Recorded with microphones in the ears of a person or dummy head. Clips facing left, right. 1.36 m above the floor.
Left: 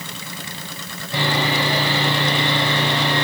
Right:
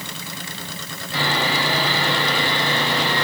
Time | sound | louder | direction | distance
1.1 | sawing | left 2 dB | 80° left | 5.5 m